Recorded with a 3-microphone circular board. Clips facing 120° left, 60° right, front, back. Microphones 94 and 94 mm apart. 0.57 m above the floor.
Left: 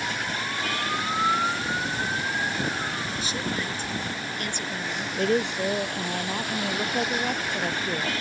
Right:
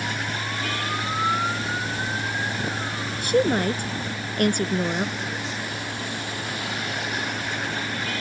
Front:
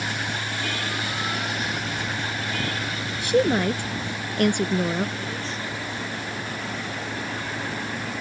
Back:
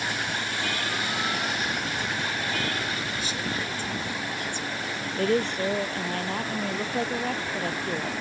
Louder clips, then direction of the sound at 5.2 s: Left 7 dB, back 7 dB; 150° left.